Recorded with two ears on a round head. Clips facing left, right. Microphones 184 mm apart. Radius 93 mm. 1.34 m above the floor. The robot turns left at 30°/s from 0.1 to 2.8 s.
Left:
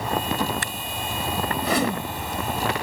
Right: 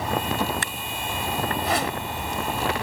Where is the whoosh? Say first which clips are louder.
Left 3 dB; 85° left; by 2.0 s 75° left (ahead or behind).